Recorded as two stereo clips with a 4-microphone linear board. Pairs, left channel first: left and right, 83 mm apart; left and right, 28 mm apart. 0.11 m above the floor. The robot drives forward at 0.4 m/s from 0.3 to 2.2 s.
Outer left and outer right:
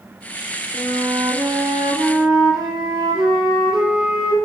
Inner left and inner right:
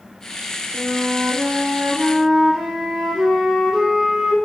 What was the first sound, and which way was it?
A flute, 5° right (ahead or behind).